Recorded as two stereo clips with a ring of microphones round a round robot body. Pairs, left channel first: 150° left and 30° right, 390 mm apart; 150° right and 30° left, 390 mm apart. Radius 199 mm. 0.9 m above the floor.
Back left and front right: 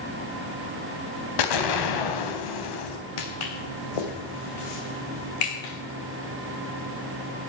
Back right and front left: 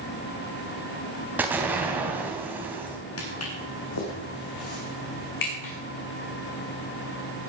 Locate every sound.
1.4 s an explosion: 115° left, 3 m
3.2 s footsteps: 155° left, 3 m; by 5.7 s 170° left, 4.5 m